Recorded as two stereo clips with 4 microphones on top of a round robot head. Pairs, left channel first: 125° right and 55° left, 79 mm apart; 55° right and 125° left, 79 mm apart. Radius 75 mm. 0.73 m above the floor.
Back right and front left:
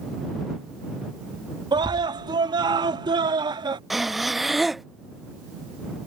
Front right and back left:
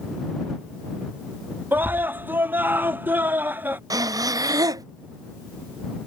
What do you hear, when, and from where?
1.7 s a scream: 65° left
3.9 s breathing: 140° left